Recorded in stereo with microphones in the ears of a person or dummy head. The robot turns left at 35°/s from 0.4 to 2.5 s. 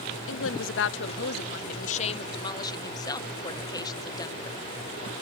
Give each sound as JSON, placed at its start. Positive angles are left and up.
{"t": 0.3, "sound": "a woman speaking", "azimuth_deg": 100}